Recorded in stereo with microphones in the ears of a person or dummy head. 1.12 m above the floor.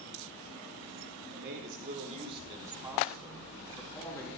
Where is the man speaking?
60° right (ahead or behind), 3 m; by 4.3 s 15° left (ahead or behind), 3.5 m.